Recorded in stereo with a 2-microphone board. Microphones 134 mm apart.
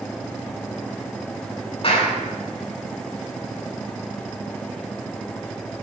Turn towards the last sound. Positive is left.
turn(degrees=45)  # may be behind; listen again after turning